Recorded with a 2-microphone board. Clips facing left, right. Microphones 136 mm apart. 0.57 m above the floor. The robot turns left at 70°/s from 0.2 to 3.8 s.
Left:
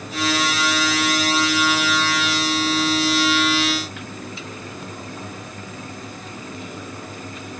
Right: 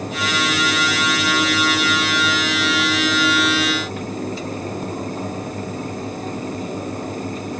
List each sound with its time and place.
Only background noise.